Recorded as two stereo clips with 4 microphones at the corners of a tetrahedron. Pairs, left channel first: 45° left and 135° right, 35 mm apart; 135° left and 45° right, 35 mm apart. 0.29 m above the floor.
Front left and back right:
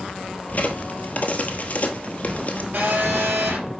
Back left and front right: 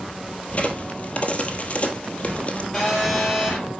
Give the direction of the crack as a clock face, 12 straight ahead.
9 o'clock.